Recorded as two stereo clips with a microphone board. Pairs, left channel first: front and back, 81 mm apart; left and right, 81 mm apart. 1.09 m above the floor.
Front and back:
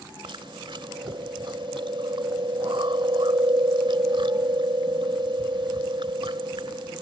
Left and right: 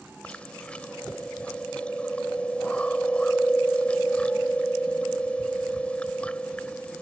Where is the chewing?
165° left.